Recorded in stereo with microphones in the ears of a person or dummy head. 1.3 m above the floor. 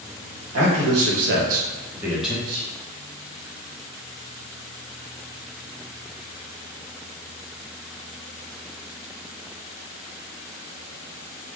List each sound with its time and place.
0.5 s a man speaking: 75° right (ahead or behind), 1.3 m; by 2.4 s centre (ahead or behind), 1.2 m
2.5 s whispering: 75° right (ahead or behind), 1.0 m